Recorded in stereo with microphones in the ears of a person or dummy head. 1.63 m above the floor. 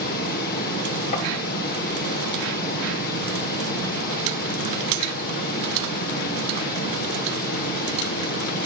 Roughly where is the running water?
Left.